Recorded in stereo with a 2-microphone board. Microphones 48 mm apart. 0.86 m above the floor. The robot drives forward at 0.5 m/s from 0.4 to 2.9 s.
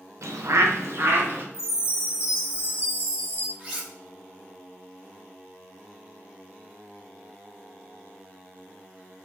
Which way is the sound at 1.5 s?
55° left (ahead or behind).